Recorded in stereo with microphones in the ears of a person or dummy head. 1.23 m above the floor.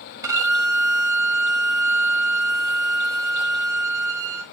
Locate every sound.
0.2 s a violin: 15° right (ahead or behind), 0.6 m